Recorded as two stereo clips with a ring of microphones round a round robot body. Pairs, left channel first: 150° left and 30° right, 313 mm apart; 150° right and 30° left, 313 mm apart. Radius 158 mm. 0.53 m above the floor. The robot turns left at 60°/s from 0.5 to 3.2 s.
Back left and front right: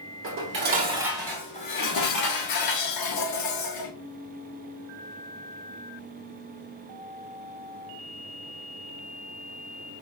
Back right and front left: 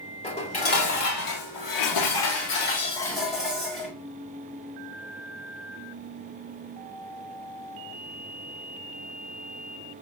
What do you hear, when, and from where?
0.2 s dishes clattering: 80° right, 1.4 m; by 3.9 s 120° left, 1.4 m